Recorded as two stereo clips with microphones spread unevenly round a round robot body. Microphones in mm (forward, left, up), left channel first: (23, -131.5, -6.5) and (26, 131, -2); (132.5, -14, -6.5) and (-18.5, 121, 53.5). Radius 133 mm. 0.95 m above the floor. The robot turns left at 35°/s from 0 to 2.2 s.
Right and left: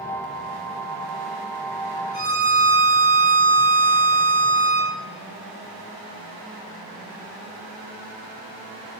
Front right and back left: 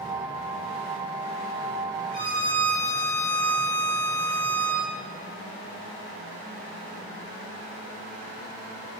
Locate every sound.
2.1 s a violin: 150° right, 1.8 m; by 4.9 s 155° right, 1.8 m